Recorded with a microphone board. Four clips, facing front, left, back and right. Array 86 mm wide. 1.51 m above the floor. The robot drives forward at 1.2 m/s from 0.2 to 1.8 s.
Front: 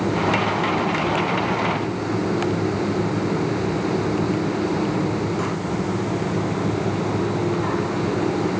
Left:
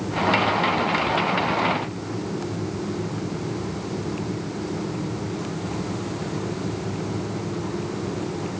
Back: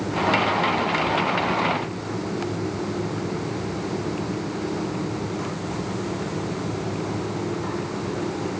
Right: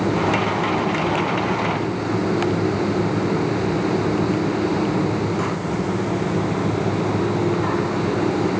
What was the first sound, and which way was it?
Only background noise.